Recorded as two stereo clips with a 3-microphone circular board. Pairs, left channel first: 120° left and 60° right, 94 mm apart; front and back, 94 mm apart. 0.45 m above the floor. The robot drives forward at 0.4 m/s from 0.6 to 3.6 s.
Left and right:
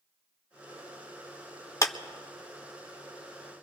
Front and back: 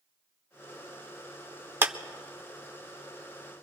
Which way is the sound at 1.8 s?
130° left.